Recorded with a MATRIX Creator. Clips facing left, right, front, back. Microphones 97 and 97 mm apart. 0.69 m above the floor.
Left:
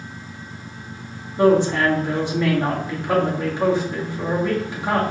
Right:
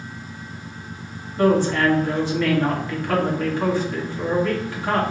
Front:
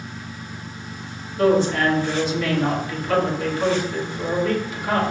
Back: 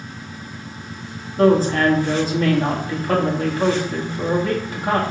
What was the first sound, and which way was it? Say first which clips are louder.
A woman speaking: left 2 dB, back 2 dB; 155° left.